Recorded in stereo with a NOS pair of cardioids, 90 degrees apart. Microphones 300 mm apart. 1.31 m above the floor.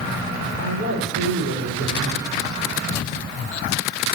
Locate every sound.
0.6 s a man speaking: 60° right, 5.5 m